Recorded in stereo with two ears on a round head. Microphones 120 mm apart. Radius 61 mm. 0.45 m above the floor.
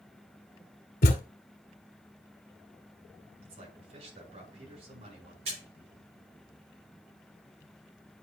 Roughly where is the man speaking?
Right.